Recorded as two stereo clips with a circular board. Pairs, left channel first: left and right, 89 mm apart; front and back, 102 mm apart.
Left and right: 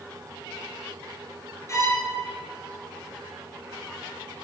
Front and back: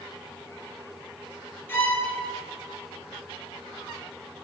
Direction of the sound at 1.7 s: 60° left.